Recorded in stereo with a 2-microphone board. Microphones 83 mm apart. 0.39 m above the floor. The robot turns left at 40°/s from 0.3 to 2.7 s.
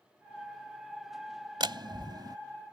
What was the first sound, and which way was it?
A door slam, 70° right (ahead or behind).